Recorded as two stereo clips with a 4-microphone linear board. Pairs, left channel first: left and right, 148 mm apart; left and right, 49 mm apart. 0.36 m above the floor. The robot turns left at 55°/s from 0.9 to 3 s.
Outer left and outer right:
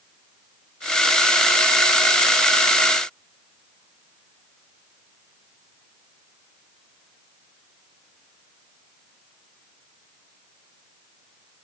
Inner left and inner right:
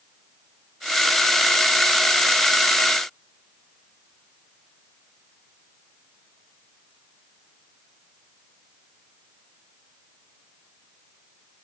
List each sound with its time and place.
Only background noise.